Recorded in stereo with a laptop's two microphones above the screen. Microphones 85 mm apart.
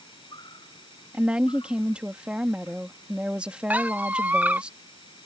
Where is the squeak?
20° right (ahead or behind).